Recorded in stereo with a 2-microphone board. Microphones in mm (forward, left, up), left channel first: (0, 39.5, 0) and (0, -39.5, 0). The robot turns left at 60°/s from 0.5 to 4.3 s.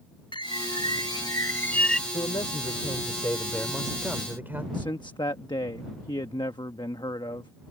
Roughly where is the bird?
Left.